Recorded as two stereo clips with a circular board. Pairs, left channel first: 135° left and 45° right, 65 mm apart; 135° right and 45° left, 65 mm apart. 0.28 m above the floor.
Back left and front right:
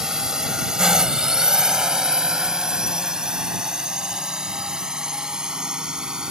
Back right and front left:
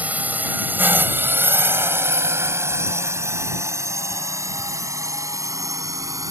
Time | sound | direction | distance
0.0 | a drone | 25° left | ?